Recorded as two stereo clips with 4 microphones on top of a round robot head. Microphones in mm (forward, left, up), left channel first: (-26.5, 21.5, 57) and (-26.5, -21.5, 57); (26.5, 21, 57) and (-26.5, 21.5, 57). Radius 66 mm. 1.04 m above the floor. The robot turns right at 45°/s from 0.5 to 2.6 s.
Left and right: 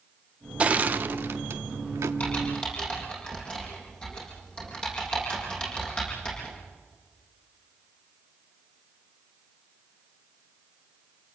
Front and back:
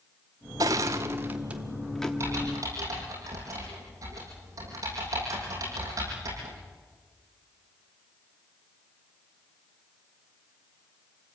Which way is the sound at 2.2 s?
140° left.